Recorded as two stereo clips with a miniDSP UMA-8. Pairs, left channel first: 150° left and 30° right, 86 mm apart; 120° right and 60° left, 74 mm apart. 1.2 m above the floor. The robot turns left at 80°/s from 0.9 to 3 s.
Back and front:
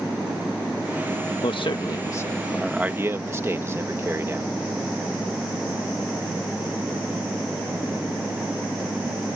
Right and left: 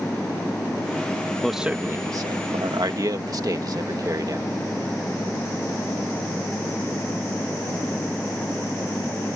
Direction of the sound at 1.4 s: 155° left.